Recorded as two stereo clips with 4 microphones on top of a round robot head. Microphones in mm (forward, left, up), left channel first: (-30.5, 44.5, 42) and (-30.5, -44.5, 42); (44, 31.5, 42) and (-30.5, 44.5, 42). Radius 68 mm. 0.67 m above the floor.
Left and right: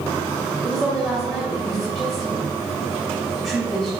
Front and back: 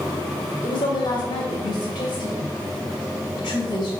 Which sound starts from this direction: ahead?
A woman speaking, at 0.6 s.